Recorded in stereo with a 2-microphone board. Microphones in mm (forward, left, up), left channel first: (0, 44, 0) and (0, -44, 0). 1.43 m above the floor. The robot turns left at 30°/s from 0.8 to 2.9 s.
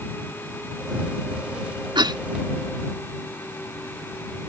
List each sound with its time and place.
1.9 s a cough: 65° right (ahead or behind); by 2.2 s 55° right (ahead or behind)